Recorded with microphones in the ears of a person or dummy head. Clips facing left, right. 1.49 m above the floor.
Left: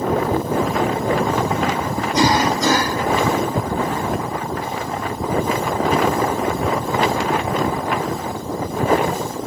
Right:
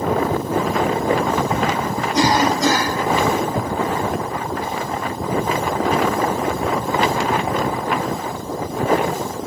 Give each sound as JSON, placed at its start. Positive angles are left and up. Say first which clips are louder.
{"t": 2.1, "sound": "a cough", "louder": "even", "side_deg": 80, "distance_m": 1.3}